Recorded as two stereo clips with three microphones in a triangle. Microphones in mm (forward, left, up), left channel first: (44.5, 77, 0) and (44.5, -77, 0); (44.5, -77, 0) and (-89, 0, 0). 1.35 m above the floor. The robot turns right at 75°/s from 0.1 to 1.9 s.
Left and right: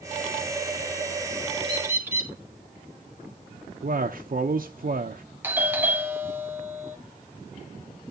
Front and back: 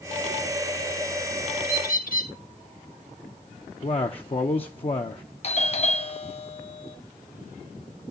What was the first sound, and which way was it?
A bird, 35° right.